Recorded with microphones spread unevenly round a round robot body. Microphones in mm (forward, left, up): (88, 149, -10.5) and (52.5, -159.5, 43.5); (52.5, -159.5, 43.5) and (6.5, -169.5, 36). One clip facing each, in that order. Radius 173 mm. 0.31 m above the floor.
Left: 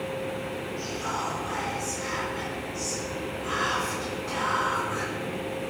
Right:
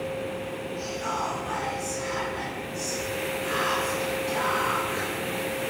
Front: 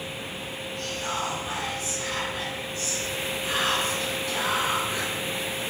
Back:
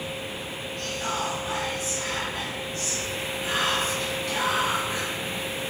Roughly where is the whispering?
Behind.